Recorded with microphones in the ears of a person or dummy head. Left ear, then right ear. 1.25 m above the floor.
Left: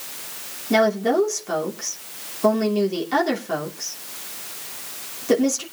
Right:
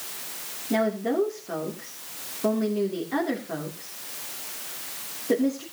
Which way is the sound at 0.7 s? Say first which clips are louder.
Left 7 dB; 90° left.